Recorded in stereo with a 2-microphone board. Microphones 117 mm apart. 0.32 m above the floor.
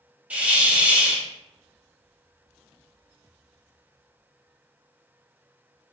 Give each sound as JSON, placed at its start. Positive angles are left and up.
{"t": 0.3, "sound": "a hiss", "side_deg": -10, "distance_m": 0.7}